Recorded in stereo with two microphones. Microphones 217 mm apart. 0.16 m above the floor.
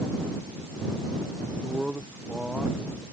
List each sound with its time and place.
1.6 s a man speaking: 5° right (ahead or behind)